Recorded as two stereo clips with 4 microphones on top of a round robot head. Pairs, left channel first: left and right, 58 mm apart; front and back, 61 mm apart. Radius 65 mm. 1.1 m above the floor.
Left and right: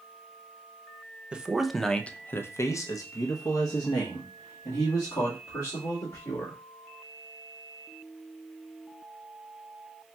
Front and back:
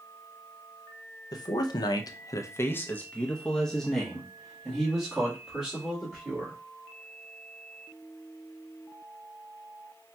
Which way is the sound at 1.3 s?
20° right.